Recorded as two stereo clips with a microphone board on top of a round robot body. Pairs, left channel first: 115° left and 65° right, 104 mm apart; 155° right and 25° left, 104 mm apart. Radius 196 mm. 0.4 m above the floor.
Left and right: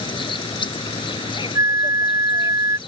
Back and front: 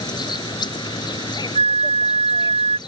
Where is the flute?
5° right.